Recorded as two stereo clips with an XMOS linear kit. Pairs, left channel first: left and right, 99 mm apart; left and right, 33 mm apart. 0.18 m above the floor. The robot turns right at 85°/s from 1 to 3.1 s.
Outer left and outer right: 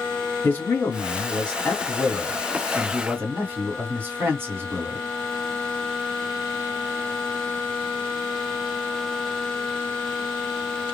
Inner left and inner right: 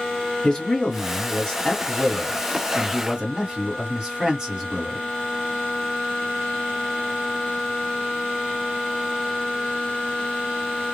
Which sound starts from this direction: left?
A man speaking, at 0.4 s.